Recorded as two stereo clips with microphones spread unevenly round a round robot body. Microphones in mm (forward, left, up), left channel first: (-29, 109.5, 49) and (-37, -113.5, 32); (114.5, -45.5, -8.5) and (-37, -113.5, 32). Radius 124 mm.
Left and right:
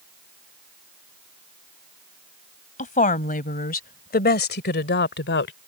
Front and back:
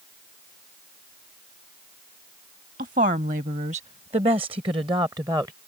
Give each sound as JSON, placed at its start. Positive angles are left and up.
{"t": 2.8, "sound": "a woman speaking", "azimuth_deg": 145}